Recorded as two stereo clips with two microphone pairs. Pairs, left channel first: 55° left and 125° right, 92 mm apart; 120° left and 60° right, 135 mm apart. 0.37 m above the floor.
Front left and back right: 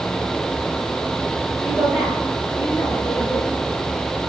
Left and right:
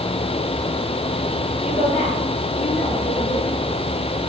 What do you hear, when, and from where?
1.6 s a woman speaking: 140° left, 8 m; by 3.5 s 125° left, 10 m